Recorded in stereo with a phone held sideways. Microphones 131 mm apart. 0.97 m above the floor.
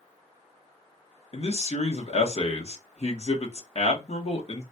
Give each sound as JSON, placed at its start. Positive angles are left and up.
{"t": 1.3, "sound": "a man speaking", "side_deg": 50, "distance_m": 1.0}